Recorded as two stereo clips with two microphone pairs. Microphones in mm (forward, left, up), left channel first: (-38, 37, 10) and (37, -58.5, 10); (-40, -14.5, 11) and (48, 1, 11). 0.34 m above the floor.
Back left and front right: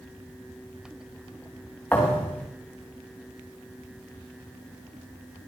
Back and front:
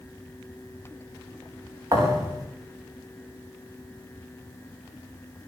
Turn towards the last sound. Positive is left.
turn(degrees=50)